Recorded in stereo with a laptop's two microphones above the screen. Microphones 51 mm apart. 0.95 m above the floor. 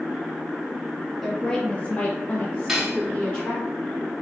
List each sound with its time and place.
1.2 s a woman speaking: 10° left (ahead or behind), 1.2 m; by 3.6 s 25° left (ahead or behind), 1.8 m
2.7 s cutlery clinking: 10° right (ahead or behind), 0.9 m